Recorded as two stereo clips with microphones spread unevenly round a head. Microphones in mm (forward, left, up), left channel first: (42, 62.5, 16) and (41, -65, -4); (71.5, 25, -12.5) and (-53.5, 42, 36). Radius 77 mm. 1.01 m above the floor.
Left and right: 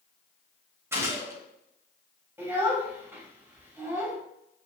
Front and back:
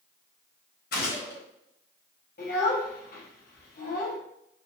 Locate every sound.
0.9 s a gunshot: 20° right, 4 m
2.4 s a child speaking: 15° right, 3.5 m